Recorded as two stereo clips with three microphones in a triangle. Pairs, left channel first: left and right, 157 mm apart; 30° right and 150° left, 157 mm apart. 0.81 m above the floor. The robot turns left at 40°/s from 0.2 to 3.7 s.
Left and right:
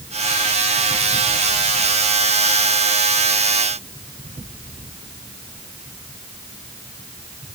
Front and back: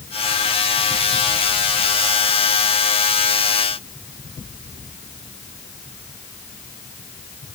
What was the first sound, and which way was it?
Only background noise.